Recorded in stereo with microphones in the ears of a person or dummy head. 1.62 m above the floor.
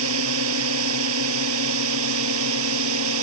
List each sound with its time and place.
0.0 s a drone: 75° right (ahead or behind)